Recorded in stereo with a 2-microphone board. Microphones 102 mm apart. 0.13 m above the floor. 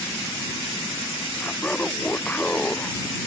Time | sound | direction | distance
1.4 | laughter | 10° left (ahead or behind) | ?